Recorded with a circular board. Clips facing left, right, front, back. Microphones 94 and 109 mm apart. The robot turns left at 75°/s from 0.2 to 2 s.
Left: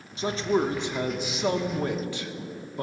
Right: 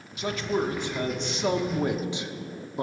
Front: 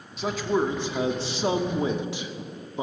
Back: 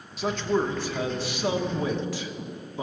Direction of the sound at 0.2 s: 90° left.